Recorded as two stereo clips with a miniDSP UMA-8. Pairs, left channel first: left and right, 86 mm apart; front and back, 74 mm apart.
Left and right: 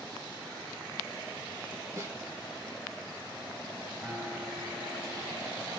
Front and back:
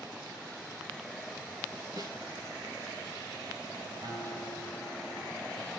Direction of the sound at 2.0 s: 145° right.